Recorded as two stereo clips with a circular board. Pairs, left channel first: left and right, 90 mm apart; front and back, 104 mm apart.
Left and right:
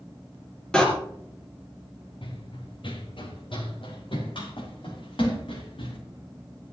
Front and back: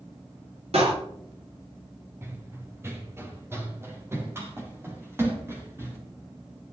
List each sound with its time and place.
0.7 s a door slam: 170° left, 3.5 m
2.2 s running footsteps: 115° left, 2.5 m